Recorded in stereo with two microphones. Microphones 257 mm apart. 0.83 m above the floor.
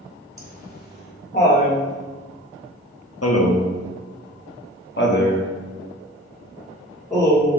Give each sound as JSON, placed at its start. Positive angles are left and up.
{"t": 0.4, "sound": "laughter", "side_deg": 35, "distance_m": 2.5}